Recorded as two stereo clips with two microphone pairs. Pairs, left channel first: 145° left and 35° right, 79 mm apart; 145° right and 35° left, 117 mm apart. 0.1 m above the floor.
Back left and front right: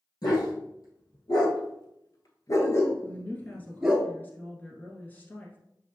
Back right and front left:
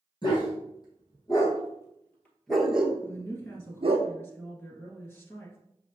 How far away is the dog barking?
About 2 m.